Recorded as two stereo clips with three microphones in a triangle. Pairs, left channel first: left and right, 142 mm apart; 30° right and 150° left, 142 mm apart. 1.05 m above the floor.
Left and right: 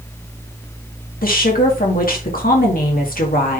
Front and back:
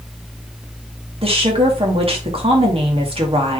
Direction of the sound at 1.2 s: 100° left.